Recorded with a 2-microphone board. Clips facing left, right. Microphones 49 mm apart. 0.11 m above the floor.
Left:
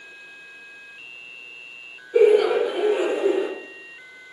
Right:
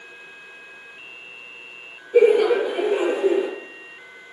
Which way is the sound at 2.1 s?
30° right (ahead or behind).